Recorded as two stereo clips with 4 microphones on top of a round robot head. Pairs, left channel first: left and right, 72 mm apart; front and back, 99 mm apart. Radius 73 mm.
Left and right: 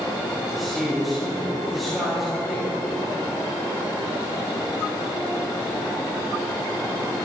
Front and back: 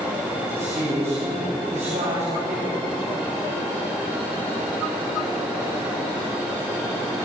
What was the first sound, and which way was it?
A man speaking, straight behind.